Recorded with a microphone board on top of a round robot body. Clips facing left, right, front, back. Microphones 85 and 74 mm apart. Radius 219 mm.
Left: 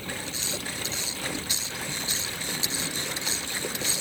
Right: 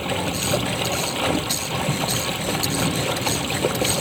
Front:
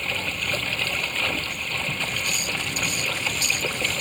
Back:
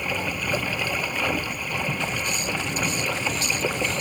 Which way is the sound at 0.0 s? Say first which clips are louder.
Right 12 dB, back 2 dB; 100° right.